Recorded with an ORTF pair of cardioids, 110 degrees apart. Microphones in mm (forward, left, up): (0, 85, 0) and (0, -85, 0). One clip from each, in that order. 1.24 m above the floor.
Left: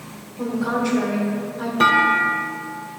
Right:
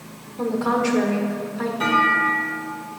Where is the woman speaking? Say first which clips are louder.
Right 2 dB; 35° right, 1.4 m.